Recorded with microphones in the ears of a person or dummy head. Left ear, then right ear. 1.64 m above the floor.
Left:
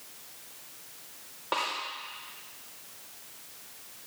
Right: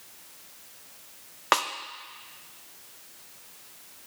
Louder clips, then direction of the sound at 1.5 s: Right 6 dB; 65° right (ahead or behind).